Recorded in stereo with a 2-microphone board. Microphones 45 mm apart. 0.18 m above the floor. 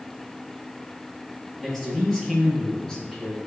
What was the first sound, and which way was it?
A man speaking, 5° left (ahead or behind).